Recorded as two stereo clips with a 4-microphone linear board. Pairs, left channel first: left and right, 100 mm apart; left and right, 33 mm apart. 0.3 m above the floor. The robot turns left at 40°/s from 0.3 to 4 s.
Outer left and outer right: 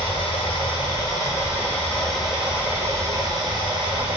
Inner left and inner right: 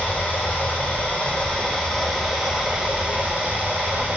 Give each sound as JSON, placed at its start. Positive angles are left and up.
{"t": 0.0, "sound": "running water", "azimuth_deg": 75, "distance_m": 0.9}